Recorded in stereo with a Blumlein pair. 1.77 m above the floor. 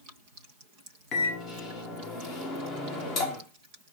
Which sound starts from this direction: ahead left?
A microwave, at 1.1 s.